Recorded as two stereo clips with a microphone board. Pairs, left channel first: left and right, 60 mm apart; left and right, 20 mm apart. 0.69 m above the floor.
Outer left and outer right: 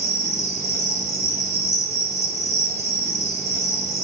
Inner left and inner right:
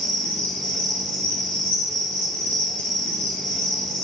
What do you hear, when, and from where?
0.0 s an insect: 85° left, 1.5 m